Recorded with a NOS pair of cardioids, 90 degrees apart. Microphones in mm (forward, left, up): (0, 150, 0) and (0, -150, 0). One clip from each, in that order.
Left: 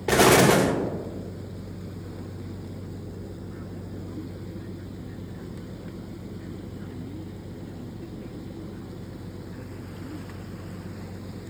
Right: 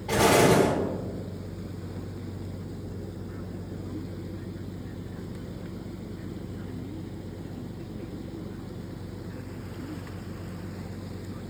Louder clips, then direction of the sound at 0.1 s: Left 3 dB; 70° left.